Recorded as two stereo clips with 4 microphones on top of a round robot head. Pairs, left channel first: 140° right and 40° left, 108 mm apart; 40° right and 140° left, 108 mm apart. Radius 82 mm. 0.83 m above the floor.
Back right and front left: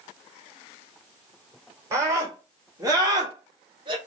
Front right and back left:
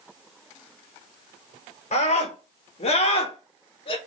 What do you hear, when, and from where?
1.9 s a scream: 25° right, 3 m; by 4.0 s 5° right, 1.8 m